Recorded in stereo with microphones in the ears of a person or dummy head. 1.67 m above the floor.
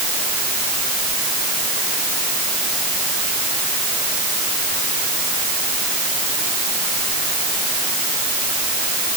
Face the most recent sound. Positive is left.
No sound to turn to.